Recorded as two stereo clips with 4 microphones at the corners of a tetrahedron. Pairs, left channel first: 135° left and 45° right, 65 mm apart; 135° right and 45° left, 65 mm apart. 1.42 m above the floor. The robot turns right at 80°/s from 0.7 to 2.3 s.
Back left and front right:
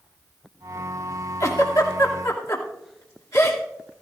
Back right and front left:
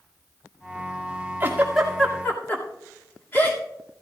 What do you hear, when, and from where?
1.4 s a giggle: 100° left, 2.5 m; by 3.6 s 170° left, 2.5 m